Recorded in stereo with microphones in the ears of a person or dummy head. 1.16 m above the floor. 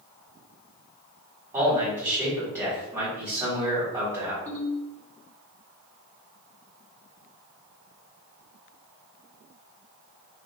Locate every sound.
1.5 s a man speaking: 15° right (ahead or behind), 1.5 m
4.5 s a ringtone: 15° left (ahead or behind), 1.6 m